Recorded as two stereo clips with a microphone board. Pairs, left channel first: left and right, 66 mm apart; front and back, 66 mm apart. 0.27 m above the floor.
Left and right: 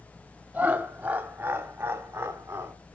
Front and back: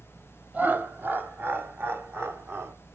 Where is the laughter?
140° right, 1.3 m.